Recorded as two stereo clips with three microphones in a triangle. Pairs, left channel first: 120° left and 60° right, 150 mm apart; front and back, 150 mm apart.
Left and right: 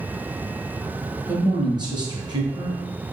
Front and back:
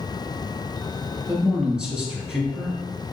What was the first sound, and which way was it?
A man speaking, 100° right.